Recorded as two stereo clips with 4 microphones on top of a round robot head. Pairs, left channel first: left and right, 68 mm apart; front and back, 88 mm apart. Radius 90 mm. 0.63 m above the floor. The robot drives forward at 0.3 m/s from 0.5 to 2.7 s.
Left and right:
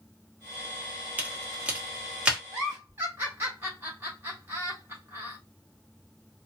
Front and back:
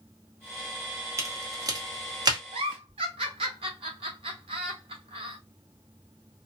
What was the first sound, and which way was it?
A crack, 145° right.